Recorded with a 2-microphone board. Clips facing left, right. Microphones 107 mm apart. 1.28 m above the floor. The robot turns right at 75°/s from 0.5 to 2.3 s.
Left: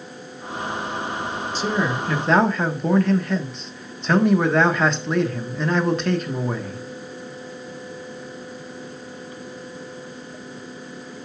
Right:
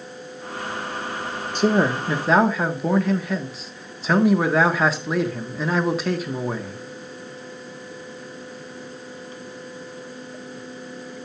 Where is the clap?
I don't hear a clap.